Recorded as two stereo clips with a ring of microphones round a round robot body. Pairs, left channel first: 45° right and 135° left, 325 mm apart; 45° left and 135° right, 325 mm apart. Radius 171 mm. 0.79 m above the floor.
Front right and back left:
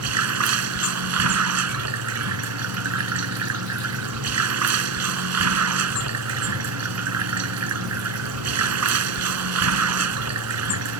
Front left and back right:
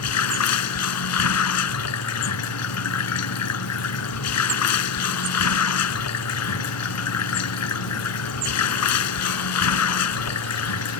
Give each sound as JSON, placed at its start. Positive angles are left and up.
{"t": 0.0, "sound": "running water", "azimuth_deg": 90}